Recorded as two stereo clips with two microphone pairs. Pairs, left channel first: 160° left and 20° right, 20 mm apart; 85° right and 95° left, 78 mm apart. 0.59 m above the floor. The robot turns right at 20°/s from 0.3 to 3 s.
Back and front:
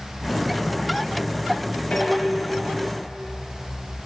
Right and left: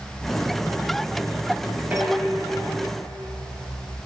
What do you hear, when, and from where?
1.9 s dishes clattering: 160° left, 2.5 m; by 2.9 s straight behind, 2.5 m